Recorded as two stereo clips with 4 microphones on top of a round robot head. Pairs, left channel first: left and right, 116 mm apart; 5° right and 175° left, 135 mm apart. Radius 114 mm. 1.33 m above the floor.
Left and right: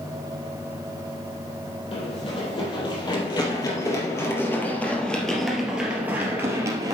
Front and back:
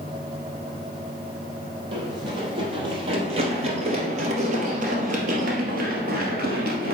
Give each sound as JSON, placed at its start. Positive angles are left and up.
{"t": 1.9, "sound": "running footsteps", "azimuth_deg": 125, "distance_m": 3.0}